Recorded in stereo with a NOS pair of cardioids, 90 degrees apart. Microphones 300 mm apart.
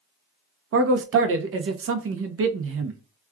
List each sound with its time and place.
0.7 s a man speaking: 45° right, 0.8 m